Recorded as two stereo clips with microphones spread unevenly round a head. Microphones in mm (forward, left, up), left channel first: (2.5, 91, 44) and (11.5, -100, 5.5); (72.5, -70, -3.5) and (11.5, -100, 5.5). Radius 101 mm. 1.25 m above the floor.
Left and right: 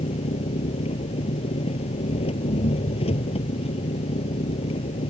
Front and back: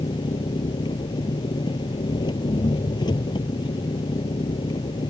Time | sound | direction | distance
0.0 | an engine running | 30° left | ?